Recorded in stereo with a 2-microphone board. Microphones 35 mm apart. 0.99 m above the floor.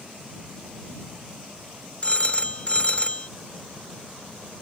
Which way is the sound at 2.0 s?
40° left (ahead or behind).